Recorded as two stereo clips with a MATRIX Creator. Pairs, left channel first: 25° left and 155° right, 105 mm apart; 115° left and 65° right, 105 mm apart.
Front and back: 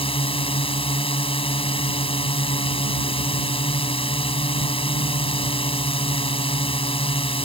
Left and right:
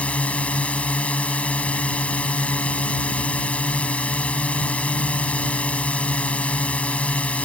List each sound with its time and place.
0.0 s a drone: 35° left